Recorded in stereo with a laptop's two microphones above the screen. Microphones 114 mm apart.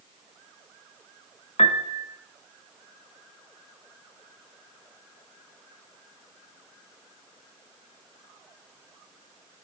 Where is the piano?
65° left (ahead or behind), 0.7 m.